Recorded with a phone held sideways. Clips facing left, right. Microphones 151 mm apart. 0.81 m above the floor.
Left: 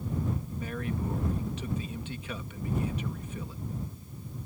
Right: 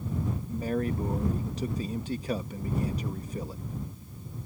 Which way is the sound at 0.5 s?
40° right (ahead or behind).